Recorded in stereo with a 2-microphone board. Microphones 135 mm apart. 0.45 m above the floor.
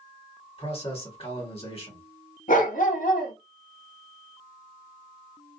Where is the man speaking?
45° left (ahead or behind), 1.4 m.